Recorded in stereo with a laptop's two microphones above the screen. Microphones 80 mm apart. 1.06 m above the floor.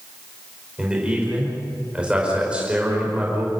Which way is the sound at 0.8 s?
15° right (ahead or behind).